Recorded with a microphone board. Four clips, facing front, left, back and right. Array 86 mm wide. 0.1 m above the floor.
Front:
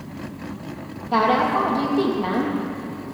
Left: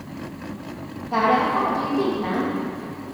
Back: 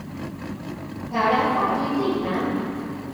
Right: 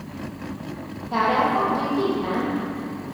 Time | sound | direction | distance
1.1 | a woman speaking | 5° right | 4 m